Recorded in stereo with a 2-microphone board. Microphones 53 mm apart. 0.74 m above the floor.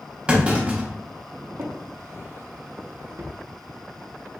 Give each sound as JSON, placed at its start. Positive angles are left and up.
{"t": 0.3, "sound": "a clunk", "side_deg": -20, "distance_m": 0.9}
{"t": 1.6, "sound": "a drawer", "side_deg": -55, "distance_m": 0.5}